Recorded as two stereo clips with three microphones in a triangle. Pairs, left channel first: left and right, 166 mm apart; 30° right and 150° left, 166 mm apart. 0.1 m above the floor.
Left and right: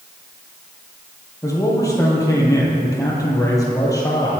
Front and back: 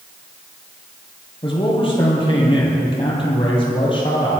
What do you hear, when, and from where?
1.4 s a man speaking: 25° left, 3 m